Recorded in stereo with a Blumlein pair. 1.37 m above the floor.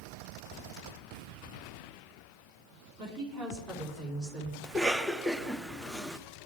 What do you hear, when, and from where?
3.0 s a woman speaking: 40° right, 4 m; by 4.5 s 25° right, 5.5 m
4.6 s a cough: straight ahead, 0.6 m